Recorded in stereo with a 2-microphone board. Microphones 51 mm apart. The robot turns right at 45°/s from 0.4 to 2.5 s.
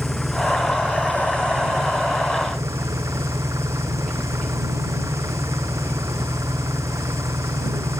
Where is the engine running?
Straight behind; by 8.0 s 85° right.